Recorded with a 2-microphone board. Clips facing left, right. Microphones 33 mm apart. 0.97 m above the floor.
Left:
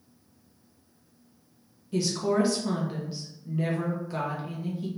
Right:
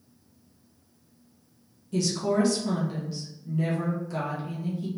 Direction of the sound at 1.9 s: 15° left (ahead or behind).